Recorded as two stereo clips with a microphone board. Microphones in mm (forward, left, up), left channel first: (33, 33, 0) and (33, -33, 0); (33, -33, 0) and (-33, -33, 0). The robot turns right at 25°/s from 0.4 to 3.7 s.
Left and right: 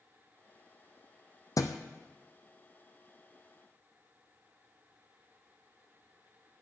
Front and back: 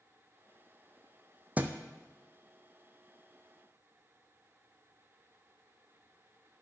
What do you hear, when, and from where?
1.6 s a thud: 115° left, 0.9 m; by 1.8 s 120° left, 0.9 m